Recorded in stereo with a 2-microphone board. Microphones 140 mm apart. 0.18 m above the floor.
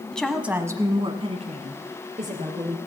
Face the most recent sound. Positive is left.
turn(degrees=-60)  # may be behind; listen again after turning